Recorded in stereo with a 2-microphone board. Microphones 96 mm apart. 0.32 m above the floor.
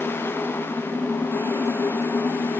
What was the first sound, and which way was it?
Only background noise.